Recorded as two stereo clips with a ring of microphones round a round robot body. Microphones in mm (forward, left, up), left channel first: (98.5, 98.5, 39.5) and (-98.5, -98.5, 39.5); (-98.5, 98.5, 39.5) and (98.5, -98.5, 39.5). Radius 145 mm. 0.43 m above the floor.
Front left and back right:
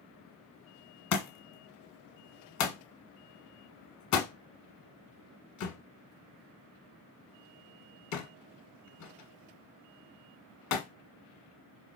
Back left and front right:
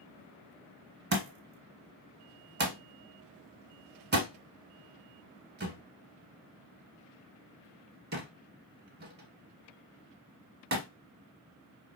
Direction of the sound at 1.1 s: 10° left.